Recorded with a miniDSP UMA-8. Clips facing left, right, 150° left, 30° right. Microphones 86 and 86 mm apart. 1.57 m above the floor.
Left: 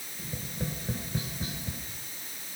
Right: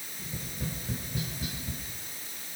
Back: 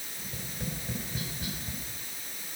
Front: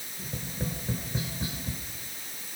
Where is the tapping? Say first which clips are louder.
Left 2 dB, front 4 dB; 35° left, 5 m.